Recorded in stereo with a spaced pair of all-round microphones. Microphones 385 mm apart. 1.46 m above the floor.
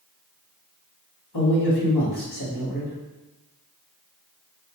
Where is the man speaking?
75° left (ahead or behind), 1.4 m.